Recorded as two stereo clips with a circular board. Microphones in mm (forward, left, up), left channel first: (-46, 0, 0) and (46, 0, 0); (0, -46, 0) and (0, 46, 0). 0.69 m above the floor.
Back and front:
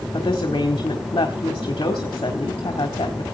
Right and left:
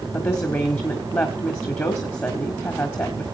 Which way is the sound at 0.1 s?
150° right.